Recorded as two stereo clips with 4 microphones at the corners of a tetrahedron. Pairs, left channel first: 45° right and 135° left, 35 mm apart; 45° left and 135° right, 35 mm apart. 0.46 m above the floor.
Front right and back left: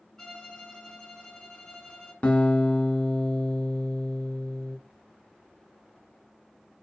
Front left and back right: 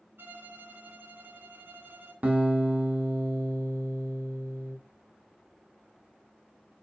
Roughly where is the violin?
Behind right.